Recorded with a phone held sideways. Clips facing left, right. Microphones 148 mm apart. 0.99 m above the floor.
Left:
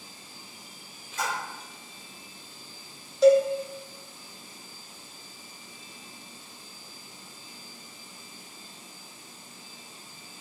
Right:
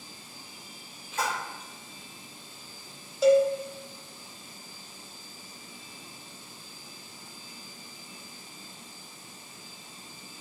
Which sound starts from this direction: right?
A splash, at 1.2 s.